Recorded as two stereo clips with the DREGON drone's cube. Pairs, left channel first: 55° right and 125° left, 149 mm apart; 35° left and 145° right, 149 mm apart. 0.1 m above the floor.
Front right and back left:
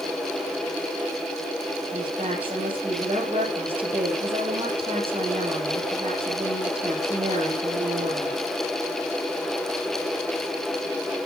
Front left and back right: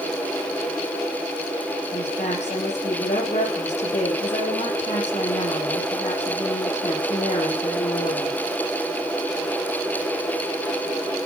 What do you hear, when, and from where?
1.9 s a woman speaking: 75° left, 7 m